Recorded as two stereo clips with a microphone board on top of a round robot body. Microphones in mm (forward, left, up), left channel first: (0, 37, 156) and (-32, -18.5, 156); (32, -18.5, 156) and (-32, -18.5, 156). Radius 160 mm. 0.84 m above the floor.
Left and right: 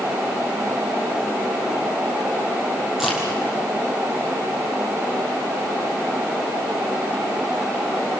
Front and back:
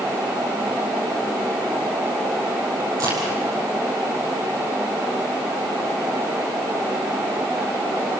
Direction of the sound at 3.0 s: 155° left.